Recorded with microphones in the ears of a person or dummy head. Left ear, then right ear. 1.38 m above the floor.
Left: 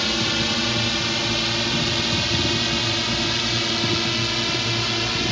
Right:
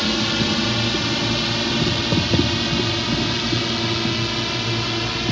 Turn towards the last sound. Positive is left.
turn(degrees=15)  # may be behind; listen again after turning